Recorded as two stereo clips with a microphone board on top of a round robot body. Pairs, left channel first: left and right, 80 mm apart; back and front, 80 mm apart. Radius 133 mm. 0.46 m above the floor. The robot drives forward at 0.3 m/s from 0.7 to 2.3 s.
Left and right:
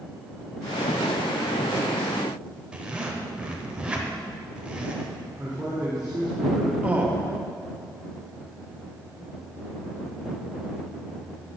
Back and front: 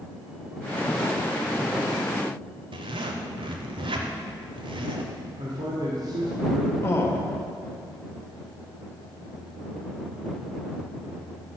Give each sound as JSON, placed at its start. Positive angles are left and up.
{"t": 2.7, "sound": "a zipper", "azimuth_deg": -10, "distance_m": 0.8}
{"t": 5.4, "sound": "a man speaking", "azimuth_deg": -10, "distance_m": 1.4}
{"t": 6.8, "sound": "a man speaking", "azimuth_deg": -150, "distance_m": 1.1}